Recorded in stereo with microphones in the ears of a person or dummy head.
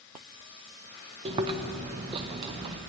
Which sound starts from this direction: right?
Chewing, at 1.2 s.